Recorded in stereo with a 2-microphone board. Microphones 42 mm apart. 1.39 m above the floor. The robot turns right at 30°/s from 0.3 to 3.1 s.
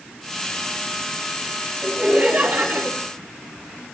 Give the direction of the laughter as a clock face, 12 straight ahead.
5 o'clock.